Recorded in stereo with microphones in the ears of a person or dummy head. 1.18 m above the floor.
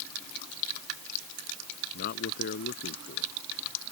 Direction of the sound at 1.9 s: 55° left (ahead or behind).